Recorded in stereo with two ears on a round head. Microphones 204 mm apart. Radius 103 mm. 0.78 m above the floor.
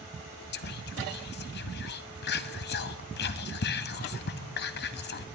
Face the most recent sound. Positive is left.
turn(degrees=45)  # may be behind; listen again after turning